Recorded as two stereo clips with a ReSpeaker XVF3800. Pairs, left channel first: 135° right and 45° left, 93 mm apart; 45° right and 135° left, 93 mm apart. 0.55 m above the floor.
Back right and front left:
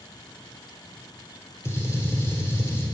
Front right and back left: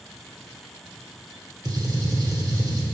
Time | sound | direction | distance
1.6 | a gunshot | 170° left | 1.3 m